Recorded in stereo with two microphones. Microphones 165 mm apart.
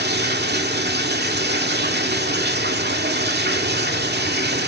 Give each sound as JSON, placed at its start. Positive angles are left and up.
{"t": 0.0, "sound": "running water", "side_deg": -75, "distance_m": 2.0}